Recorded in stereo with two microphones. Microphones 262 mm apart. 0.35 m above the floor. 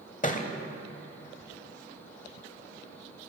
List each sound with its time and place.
0.2 s a thud: 30° left (ahead or behind), 0.9 m